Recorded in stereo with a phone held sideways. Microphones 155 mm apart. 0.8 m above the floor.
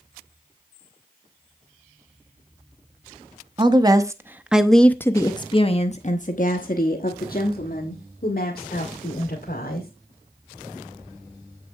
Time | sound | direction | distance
3.6 | a woman speaking | 30° right (ahead or behind) | 1.1 m